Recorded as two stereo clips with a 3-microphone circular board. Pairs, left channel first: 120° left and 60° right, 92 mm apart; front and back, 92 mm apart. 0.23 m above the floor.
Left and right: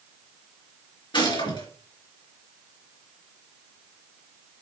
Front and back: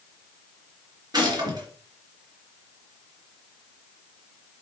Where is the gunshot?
145° left, 3.5 m.